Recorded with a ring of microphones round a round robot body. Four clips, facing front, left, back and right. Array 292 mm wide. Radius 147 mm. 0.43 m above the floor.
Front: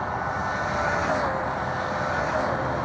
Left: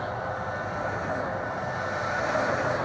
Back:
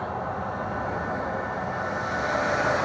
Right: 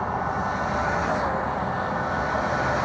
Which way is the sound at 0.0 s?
70° right.